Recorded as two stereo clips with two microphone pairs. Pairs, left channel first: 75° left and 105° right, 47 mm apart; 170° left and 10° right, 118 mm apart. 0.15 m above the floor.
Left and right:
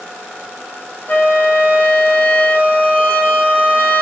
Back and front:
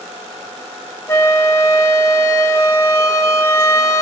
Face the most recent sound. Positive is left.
turn(degrees=110)